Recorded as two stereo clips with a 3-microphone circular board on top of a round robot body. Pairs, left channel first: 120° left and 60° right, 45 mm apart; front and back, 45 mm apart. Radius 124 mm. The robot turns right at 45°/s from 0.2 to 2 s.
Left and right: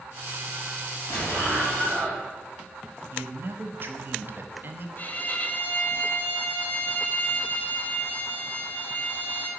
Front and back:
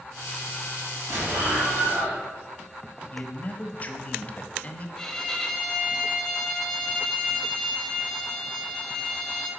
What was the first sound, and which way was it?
An explosion, 155° left.